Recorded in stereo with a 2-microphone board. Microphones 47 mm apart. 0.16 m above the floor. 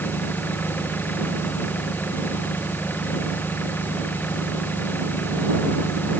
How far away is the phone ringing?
No phone ringing in this recording.